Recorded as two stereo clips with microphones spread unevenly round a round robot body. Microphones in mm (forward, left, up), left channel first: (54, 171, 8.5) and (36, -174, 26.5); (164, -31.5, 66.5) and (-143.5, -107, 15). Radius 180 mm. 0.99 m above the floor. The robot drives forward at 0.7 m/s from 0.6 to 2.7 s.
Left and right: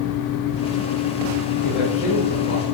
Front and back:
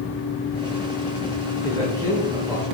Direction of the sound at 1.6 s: 95° left.